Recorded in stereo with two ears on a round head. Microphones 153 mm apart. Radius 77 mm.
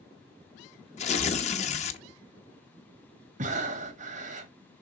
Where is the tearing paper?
40° left (ahead or behind), 1.0 m.